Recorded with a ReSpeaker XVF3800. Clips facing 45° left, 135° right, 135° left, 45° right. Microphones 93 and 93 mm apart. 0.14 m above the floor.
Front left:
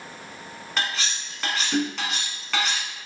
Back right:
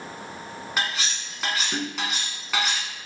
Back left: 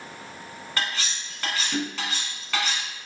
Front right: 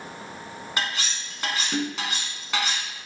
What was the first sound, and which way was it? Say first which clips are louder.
Cutlery clinking: even, even; 70° right.